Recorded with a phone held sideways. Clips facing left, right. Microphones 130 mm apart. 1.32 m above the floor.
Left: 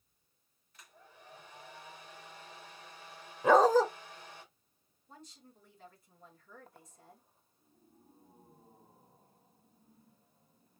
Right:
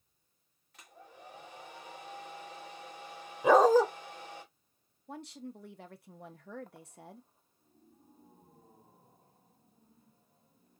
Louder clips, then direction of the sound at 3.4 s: Right 2 dB; 10° right (ahead or behind).